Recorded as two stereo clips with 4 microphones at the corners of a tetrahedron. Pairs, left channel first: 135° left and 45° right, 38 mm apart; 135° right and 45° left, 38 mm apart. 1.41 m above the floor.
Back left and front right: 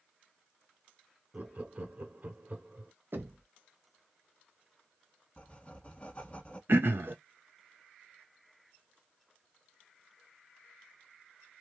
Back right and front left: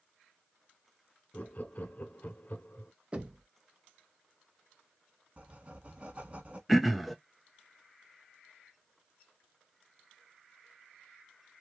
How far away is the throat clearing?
About 0.6 m.